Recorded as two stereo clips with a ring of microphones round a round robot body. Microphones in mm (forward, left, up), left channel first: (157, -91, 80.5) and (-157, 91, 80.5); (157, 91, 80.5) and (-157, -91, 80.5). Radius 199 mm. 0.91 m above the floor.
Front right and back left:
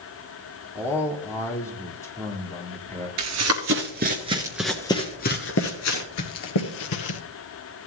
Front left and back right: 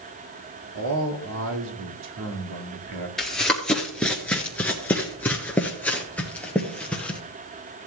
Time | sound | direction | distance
0.8 | a man speaking | 110° right | 2 m
3.2 | running footsteps | 120° left | 1.2 m